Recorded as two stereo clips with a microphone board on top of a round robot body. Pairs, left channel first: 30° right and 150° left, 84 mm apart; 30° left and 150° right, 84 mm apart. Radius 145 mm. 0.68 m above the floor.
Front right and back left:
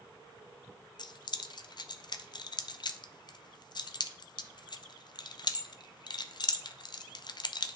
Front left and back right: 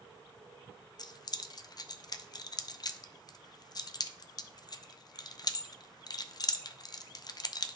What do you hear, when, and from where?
1.0 s keys jangling: 5° right, 0.6 m